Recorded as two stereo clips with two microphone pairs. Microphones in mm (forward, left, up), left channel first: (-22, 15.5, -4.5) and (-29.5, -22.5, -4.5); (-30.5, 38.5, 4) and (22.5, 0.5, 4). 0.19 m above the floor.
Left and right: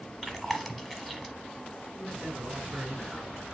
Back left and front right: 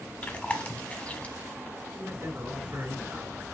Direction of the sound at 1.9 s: 35° right.